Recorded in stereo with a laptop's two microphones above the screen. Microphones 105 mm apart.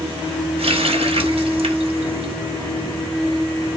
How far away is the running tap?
About 0.9 m.